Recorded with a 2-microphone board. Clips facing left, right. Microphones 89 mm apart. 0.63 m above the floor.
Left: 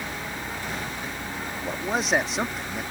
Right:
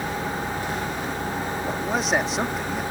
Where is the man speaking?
Centre (ahead or behind).